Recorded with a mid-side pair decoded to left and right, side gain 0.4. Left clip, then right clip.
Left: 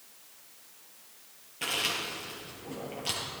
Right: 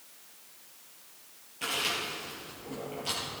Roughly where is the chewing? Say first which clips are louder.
Even; ahead left.